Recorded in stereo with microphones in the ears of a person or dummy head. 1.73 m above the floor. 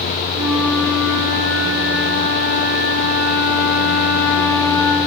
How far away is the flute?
About 4.5 m.